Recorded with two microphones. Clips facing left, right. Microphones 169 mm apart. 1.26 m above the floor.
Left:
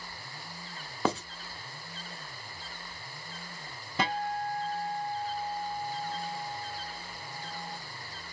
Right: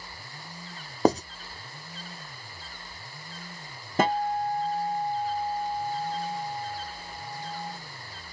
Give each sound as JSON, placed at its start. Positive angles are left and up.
{"t": 1.1, "sound": "writing", "side_deg": -40, "distance_m": 0.7}
{"t": 4.0, "sound": "a guitar", "side_deg": -45, "distance_m": 0.5}